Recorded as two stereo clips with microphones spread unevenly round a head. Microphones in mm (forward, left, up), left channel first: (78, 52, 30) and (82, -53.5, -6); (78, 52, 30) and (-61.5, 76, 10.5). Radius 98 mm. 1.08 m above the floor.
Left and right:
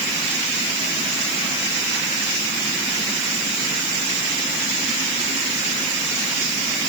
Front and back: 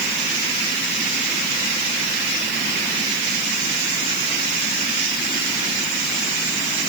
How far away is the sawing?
I don't hear sawing.